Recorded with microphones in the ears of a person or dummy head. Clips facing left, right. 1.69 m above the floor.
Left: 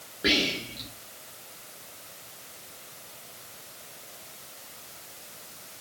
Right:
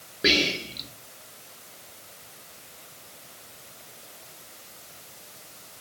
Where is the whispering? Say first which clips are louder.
Right 2 dB; 30° right (ahead or behind), 0.9 m.